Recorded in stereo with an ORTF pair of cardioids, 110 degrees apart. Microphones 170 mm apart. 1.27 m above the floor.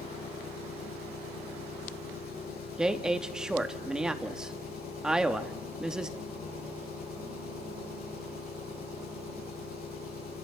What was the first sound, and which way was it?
An engine running, 60° left.